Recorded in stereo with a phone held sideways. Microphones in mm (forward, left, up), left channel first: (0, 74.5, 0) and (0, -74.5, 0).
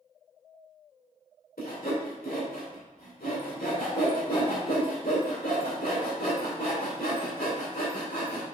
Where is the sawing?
80° left, 2.5 m.